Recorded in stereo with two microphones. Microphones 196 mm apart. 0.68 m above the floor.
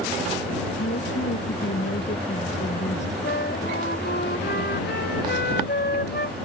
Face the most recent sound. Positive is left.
turn(degrees=60)  # may be behind; listen again after turning